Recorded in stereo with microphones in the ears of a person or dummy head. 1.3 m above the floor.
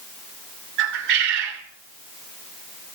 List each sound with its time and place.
0.8 s a bird: 70° right (ahead or behind), 2 m